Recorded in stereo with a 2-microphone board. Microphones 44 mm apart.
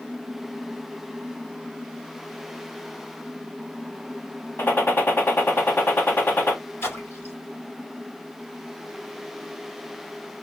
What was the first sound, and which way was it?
A gunshot, 50° left (ahead or behind).